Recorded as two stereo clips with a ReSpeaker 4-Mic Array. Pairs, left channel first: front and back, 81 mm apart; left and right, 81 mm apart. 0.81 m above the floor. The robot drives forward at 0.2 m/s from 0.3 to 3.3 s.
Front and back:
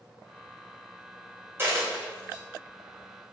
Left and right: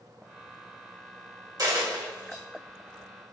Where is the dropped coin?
120° right, 1.2 m; by 2.4 s 130° right, 1.3 m.